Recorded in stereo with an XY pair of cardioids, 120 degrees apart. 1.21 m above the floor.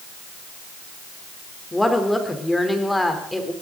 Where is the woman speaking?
10° left, 3 m.